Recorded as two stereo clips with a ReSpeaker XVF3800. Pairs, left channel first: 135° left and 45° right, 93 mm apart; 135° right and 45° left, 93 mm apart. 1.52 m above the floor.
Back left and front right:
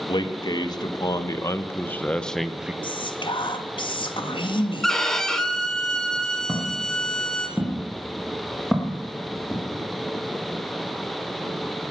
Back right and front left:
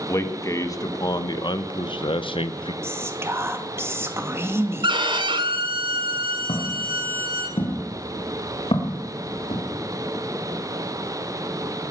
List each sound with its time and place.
0.1 s a man speaking: 170° left, 1.9 m; by 2.7 s 125° right, 0.9 m
2.8 s whispering: 110° left, 2 m
4.8 s a violin: 50° left, 2.0 m
6.5 s footsteps: 120° right, 5.5 m; by 9.6 s 145° right, 4.5 m